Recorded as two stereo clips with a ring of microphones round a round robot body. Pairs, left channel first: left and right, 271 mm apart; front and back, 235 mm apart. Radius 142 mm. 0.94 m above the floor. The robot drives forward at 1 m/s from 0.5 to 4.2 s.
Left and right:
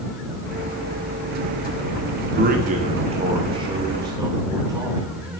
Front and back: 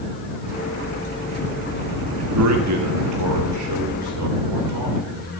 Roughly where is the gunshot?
I don't hear a gunshot.